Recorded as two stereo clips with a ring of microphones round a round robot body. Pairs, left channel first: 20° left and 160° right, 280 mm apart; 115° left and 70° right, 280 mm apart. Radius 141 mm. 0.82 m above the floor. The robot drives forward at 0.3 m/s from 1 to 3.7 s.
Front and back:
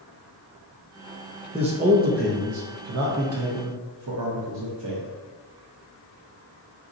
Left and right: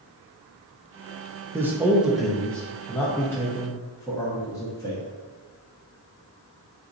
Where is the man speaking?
130° right, 0.6 m; by 5.1 s 170° right, 0.9 m.